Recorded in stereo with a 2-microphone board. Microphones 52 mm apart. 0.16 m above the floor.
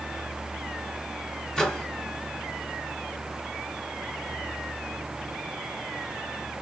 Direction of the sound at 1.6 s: 10° left (ahead or behind).